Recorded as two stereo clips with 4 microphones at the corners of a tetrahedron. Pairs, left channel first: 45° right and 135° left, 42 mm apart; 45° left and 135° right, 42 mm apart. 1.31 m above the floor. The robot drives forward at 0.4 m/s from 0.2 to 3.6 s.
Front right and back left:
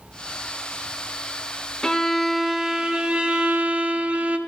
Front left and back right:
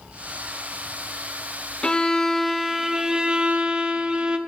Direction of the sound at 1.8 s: 10° left.